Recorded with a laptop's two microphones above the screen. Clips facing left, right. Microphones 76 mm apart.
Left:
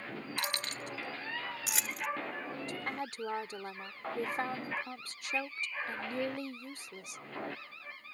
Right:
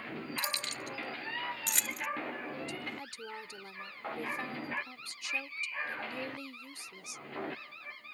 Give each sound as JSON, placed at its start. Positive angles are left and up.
{"t": 0.4, "sound": "keys jangling", "side_deg": 65}
{"t": 2.7, "sound": "a woman speaking", "side_deg": 45}